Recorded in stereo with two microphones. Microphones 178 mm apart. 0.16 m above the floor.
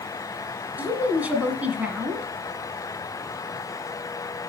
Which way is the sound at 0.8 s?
10° right (ahead or behind).